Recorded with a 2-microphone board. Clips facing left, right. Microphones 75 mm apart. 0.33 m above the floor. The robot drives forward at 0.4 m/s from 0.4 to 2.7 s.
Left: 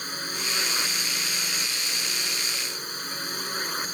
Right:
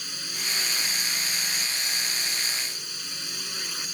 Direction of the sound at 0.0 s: 40° left (ahead or behind).